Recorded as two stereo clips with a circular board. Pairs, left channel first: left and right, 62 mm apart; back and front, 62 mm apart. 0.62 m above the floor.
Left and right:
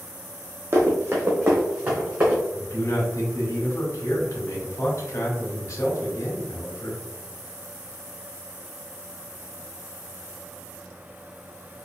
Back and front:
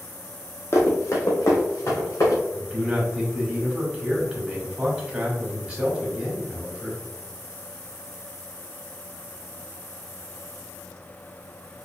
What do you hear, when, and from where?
0.7 s running footsteps: 135° right, 1.4 m; by 2.4 s 150° right, 3.5 m
2.5 s a man speaking: 65° left, 1.8 m